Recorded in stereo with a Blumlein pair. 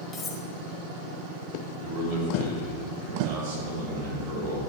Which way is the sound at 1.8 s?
45° right.